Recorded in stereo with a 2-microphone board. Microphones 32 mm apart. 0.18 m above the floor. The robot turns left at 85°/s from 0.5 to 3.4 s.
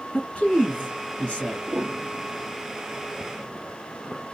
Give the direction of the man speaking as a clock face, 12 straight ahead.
8 o'clock.